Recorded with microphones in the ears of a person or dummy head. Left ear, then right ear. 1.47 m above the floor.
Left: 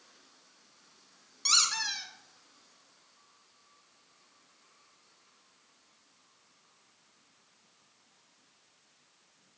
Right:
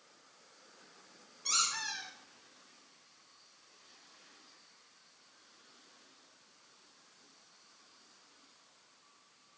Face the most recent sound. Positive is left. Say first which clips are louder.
# left 7 dB
turn(degrees=45)  # may be behind; listen again after turning